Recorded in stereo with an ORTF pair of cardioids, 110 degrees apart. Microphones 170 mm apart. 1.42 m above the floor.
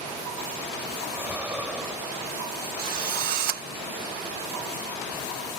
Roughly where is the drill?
Ahead right.